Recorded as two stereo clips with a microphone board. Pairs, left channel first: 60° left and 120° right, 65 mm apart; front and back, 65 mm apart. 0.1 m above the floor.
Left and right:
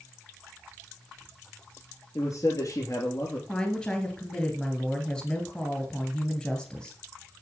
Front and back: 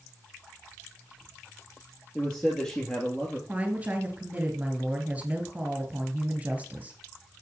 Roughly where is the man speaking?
Left.